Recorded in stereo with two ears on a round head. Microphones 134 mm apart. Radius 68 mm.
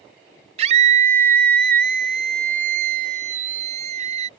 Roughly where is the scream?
Right.